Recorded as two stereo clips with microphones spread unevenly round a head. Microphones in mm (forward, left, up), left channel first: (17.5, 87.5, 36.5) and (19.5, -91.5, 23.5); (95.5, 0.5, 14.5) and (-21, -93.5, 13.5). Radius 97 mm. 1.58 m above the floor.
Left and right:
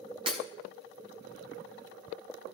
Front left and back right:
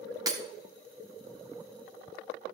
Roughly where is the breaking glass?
Behind right.